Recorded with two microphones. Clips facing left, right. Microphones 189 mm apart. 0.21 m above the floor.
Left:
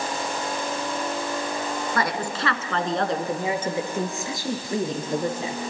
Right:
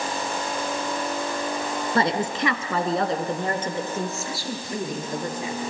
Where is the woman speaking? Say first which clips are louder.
Right 6 dB; 30° right (ahead or behind), 2 m; by 5.6 s 30° left (ahead or behind), 4 m.